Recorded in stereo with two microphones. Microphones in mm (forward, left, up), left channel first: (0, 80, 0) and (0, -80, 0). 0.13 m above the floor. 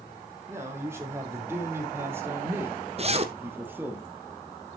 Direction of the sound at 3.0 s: 40° right (ahead or behind).